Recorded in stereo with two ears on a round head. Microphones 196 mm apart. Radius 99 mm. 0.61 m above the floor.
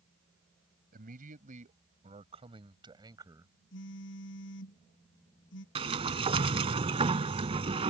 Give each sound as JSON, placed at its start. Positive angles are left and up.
{"t": 0.9, "sound": "a man speaking", "side_deg": -45}
{"t": 3.7, "sound": "a phone buzzing", "side_deg": 55}
{"t": 5.8, "sound": "a sliding door", "side_deg": -25}